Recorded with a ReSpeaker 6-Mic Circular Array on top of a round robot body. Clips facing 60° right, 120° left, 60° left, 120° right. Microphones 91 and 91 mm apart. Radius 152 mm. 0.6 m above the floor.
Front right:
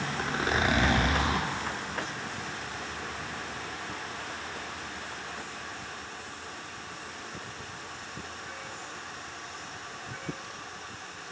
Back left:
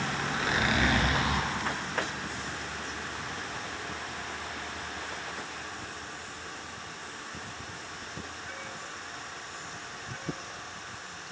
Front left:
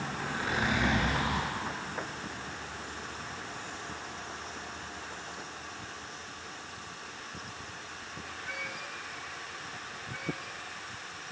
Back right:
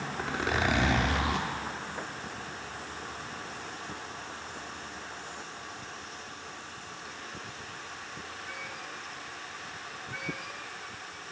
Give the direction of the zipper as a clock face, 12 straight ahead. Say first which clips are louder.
Front right 3 dB, back right 3 dB; 4 o'clock.